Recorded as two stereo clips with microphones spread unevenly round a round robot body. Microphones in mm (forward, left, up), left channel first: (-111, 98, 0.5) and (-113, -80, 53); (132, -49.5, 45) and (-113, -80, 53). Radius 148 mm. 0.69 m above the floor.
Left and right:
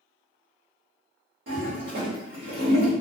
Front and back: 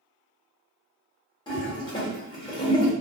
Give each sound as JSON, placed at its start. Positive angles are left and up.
{"t": 1.5, "sound": "a toilet flushing", "azimuth_deg": -55, "distance_m": 1.3}